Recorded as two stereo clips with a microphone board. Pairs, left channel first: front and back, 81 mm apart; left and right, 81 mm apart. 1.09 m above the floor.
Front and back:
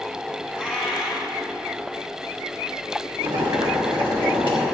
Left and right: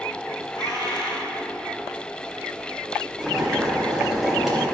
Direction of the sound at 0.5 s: 105° left.